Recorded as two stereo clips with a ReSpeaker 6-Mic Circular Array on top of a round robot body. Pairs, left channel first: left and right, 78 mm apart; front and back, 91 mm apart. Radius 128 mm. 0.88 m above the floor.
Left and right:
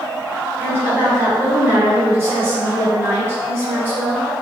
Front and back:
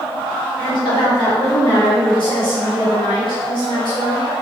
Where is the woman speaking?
35° right, 1.4 m.